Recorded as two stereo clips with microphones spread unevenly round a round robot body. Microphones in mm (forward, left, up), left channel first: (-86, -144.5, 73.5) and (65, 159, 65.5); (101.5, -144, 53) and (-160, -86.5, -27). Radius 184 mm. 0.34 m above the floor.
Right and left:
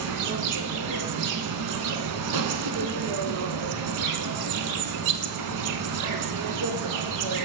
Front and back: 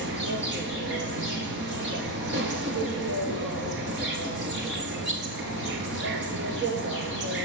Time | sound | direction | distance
0.0 | an insect | 105° left | 0.7 m